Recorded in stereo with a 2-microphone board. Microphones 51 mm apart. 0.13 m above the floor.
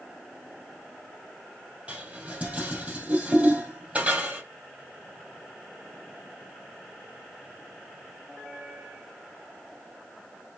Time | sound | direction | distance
1.9 | dishes clattering | 25° right (ahead or behind) | 2.5 m